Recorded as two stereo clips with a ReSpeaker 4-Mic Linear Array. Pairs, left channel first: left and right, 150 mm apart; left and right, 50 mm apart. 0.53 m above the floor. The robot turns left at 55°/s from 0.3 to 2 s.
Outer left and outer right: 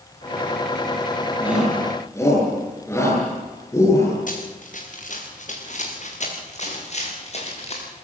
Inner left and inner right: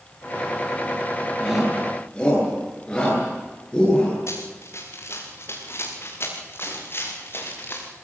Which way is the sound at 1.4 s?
15° right (ahead or behind).